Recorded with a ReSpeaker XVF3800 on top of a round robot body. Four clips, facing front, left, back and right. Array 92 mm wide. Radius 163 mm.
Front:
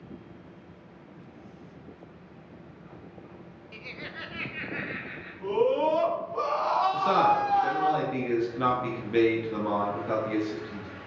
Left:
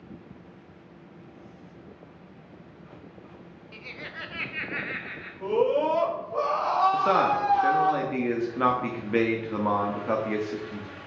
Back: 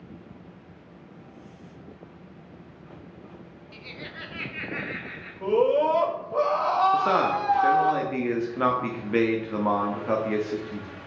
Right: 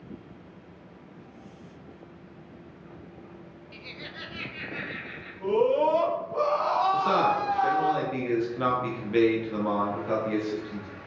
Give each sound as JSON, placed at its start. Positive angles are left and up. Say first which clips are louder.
{"t": 3.7, "sound": "laughter", "louder": "left 3 dB, even", "azimuth_deg": 30, "distance_m": 0.9}
{"t": 5.4, "sound": "a scream", "louder": "right 1 dB, back 3 dB", "azimuth_deg": 160, "distance_m": 3.0}
{"t": 6.9, "sound": "a man speaking", "louder": "left 1 dB, even", "azimuth_deg": 140, "distance_m": 1.5}